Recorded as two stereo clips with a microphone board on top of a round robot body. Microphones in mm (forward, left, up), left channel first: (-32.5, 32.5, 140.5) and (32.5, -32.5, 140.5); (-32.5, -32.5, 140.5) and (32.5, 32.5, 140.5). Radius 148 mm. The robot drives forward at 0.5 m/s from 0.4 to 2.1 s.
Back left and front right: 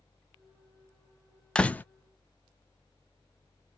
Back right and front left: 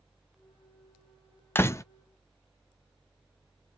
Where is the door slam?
155° right, 0.6 m; by 1.8 s 165° right, 0.6 m.